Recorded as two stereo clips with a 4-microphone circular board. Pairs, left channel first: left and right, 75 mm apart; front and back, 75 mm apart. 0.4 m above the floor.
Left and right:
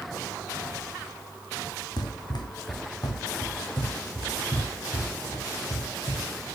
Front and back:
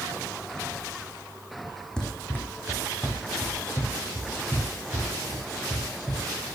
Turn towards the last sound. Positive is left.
turn(degrees=40)